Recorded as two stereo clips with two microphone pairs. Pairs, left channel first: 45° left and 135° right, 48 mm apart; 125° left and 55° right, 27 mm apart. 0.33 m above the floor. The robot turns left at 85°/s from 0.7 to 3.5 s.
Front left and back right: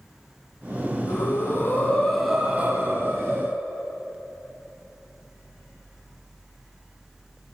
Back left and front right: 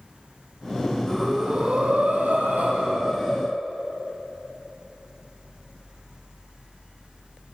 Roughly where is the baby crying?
I don't hear a baby crying.